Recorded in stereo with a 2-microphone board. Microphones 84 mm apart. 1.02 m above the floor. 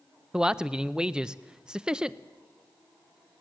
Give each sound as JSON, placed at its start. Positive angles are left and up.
{"t": 0.3, "sound": "a man speaking", "side_deg": -10, "distance_m": 0.6}